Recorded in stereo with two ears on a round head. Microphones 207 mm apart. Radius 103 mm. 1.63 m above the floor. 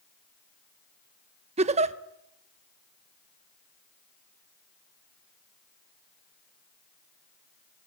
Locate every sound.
1.6 s a giggle: 25° right (ahead or behind), 0.8 m